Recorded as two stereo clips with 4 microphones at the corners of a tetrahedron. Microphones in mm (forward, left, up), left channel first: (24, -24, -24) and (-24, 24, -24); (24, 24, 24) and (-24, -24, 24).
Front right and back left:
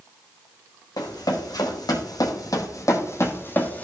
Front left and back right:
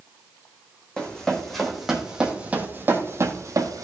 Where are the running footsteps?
30° right, 1.8 m; by 3.8 s 110° right, 1.3 m.